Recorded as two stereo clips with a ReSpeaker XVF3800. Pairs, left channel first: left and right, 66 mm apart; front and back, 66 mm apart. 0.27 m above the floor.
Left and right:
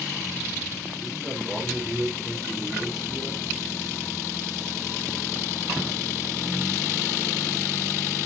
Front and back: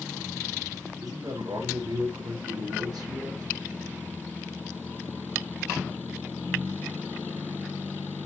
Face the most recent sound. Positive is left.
turn(degrees=180)